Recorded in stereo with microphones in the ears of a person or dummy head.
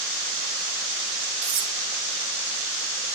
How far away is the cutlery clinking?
About 3 m.